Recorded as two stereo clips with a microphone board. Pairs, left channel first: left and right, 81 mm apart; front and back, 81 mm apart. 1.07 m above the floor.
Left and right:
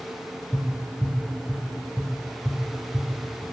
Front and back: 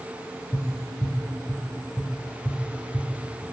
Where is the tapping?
10° left, 5 m.